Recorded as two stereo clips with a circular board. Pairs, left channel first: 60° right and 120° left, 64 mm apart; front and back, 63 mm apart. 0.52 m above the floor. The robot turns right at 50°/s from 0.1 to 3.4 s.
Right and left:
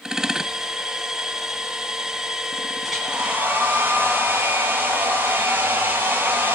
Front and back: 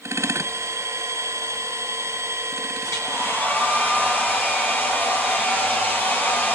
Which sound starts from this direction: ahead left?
A hair dryer, at 2.8 s.